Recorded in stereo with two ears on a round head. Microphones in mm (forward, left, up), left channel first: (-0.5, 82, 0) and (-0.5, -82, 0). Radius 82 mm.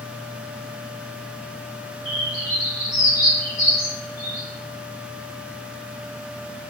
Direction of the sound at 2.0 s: 15° left (ahead or behind).